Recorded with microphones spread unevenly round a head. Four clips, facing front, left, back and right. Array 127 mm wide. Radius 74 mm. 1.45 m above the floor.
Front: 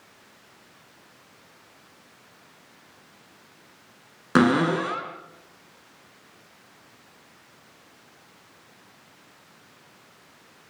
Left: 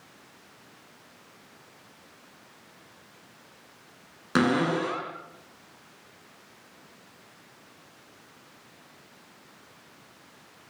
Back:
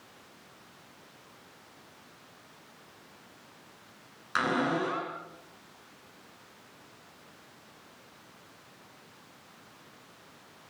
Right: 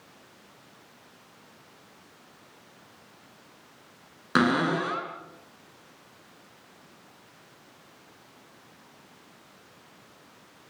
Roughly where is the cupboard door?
Ahead.